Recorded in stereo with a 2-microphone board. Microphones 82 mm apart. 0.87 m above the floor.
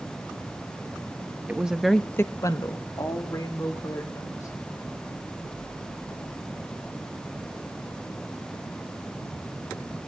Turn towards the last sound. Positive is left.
turn(degrees=40)  # may be behind; listen again after turning